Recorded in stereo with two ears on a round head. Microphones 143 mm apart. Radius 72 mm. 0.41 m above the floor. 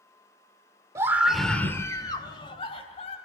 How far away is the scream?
About 1.4 m.